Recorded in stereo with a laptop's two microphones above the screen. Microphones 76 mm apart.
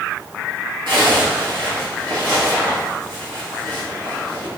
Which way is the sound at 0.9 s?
75° right (ahead or behind).